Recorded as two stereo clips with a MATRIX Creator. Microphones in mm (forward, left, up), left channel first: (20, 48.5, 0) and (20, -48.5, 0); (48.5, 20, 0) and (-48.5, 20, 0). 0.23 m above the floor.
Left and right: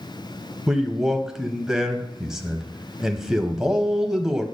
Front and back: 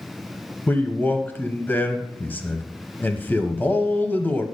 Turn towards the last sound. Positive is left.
turn(degrees=-15)